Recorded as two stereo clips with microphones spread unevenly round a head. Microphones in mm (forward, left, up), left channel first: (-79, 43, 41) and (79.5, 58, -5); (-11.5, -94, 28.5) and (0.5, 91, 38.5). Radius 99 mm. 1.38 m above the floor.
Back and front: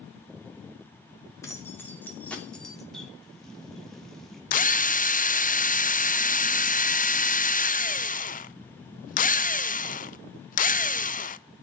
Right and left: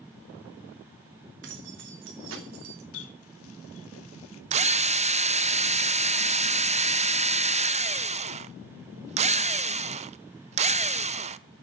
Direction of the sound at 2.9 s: 95° right.